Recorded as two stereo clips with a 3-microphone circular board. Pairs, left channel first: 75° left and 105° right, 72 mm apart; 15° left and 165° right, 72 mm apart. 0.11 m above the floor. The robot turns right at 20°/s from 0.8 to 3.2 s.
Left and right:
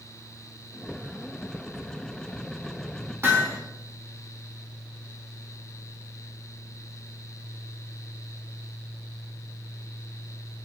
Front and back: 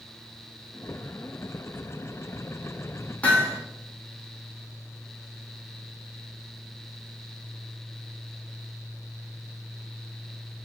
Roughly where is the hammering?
Ahead right.